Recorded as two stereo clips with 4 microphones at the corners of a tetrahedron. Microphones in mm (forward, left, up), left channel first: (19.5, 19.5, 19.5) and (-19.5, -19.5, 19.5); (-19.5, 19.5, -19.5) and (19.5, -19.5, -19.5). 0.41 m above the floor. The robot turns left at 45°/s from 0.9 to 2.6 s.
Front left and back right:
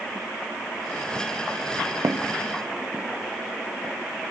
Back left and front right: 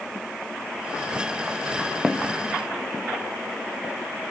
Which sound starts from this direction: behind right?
Footsteps, at 2.0 s.